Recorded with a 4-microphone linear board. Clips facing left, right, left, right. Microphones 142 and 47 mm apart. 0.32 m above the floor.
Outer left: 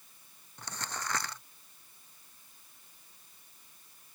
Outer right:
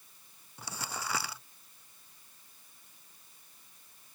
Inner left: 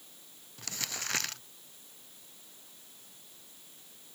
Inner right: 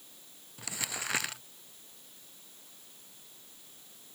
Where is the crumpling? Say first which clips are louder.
Even, inner right 1 dB; 5° right (ahead or behind).